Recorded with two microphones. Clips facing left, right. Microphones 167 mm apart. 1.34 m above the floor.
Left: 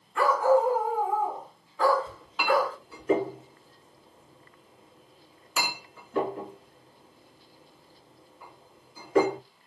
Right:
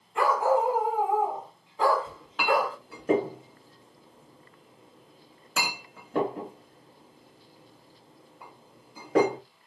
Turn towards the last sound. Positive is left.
turn(degrees=-65)  # may be behind; listen again after turning